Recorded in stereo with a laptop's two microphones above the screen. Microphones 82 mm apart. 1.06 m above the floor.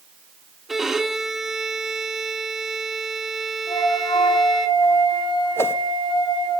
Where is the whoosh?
30° left (ahead or behind), 1.8 m.